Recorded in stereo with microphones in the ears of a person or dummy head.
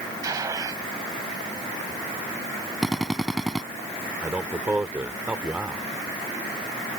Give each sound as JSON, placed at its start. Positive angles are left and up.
{"t": 0.2, "sound": "a gunshot", "side_deg": -20}
{"t": 2.8, "sound": "a drill", "side_deg": 0}
{"t": 4.2, "sound": "a man speaking", "side_deg": -10}